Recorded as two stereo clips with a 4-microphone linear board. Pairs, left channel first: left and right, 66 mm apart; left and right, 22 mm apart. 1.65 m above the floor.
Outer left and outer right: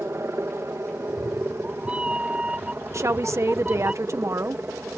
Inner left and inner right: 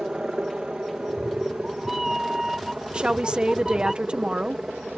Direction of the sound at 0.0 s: 45° right (ahead or behind).